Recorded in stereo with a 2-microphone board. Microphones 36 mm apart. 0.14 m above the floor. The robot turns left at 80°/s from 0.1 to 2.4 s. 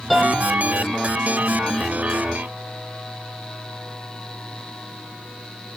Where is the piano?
Centre (ahead or behind), 5 m; by 0.5 s 30° left (ahead or behind), 5 m.